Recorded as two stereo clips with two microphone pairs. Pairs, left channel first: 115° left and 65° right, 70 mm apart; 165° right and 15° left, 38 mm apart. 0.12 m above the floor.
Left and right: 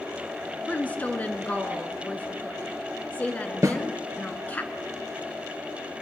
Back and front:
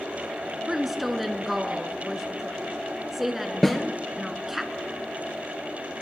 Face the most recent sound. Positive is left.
turn(degrees=-85)